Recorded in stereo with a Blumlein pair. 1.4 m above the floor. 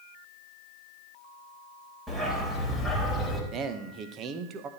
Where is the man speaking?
30° right, 1.4 m.